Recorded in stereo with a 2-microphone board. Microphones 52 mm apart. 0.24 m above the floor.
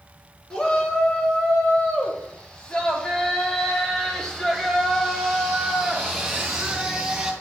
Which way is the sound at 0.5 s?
20° left (ahead or behind).